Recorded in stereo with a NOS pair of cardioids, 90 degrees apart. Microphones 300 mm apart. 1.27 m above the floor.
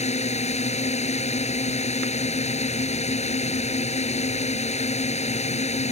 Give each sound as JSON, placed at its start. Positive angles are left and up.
{"t": 0.0, "sound": "a drone", "azimuth_deg": 20}